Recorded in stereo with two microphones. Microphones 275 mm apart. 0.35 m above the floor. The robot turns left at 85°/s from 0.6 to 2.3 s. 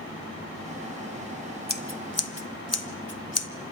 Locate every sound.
1.7 s scissors: 35° left (ahead or behind), 1.4 m; by 3.5 s 60° left (ahead or behind), 1.4 m